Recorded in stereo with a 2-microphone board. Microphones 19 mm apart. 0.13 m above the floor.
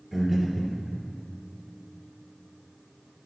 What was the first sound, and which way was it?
Breathing, 5° right (ahead or behind).